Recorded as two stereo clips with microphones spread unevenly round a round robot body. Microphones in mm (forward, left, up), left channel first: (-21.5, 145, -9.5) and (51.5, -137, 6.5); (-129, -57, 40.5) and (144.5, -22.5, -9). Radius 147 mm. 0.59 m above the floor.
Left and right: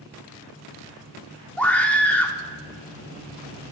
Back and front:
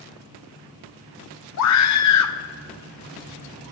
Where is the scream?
175° right, 1.3 m.